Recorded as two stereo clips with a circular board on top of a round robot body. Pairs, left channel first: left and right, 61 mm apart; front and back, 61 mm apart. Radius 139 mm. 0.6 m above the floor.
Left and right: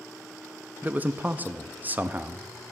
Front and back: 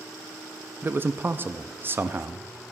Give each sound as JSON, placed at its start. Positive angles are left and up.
{"t": 0.8, "sound": "a man speaking", "azimuth_deg": -140, "distance_m": 0.7}